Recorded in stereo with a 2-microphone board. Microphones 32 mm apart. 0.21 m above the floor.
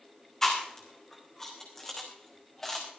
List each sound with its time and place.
0.4 s chewing: 15° left (ahead or behind), 3 m